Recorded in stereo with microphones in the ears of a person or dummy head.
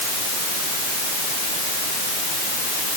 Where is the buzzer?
No buzzer in this recording.